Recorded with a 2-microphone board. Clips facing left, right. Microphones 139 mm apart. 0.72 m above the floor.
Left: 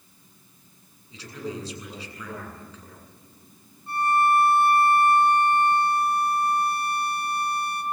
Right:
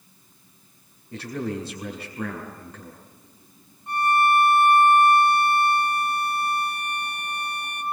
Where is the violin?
85° right, 2 m.